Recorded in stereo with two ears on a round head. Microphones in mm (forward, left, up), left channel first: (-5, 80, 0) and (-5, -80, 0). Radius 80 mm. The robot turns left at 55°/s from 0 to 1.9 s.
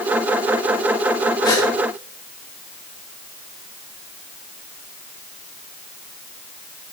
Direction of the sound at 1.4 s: 25° left (ahead or behind).